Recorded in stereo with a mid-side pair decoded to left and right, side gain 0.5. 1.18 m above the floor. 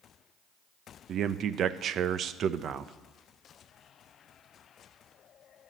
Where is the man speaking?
55° right, 0.8 m.